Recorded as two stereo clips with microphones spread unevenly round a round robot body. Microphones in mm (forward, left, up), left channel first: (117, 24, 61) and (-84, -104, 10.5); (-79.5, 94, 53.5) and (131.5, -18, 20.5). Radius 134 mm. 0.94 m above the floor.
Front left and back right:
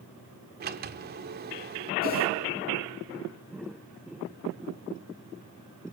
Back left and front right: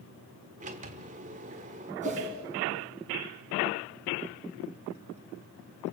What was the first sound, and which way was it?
A sliding door, 95° right.